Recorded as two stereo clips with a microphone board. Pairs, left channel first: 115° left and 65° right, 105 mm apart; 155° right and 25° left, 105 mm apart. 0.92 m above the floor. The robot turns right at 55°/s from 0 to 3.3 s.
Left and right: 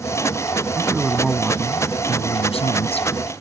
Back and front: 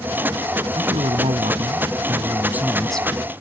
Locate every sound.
0.8 s a man speaking: 5° right; by 3.4 s 135° left